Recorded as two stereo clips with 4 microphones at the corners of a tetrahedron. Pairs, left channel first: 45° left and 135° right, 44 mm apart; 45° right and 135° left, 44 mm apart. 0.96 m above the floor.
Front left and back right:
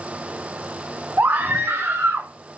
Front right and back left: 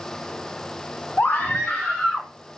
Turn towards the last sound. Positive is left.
turn(degrees=-130)